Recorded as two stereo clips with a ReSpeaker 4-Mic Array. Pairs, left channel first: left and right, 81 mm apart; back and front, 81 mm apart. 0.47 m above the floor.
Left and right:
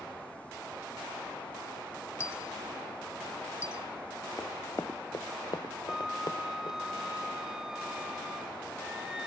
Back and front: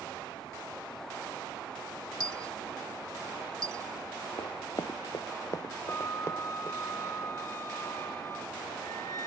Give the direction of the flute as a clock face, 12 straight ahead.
6 o'clock.